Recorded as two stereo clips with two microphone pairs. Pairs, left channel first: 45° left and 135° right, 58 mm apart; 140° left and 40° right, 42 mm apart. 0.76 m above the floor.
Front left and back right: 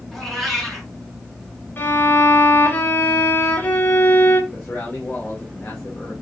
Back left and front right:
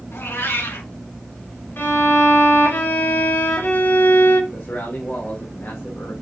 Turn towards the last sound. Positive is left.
turn(degrees=105)